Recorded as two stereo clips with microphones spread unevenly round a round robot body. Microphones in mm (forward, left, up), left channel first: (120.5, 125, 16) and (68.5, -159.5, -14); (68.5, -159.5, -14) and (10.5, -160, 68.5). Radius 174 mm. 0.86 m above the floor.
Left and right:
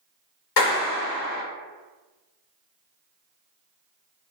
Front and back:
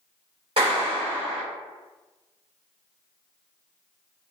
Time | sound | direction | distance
0.6 | a clap | 135° left | 0.7 m